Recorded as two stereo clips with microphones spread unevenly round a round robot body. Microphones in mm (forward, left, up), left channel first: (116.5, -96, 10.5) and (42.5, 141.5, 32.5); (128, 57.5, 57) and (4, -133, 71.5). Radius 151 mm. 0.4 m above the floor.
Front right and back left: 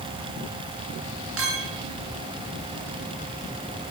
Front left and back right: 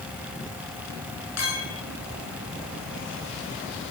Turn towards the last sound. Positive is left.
turn(degrees=75)